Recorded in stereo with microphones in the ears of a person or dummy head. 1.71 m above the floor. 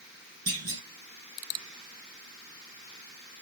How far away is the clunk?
About 1.8 m.